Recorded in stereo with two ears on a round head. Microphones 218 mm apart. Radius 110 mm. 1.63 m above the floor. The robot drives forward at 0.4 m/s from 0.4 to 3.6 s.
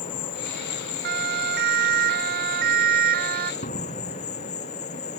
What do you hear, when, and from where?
0.0 s an insect: 85° left; by 5.2 s 45° left (ahead or behind)
1.0 s a siren: 45° right (ahead or behind); by 3.5 s 40° right (ahead or behind)
3.6 s a door slam: 35° left (ahead or behind)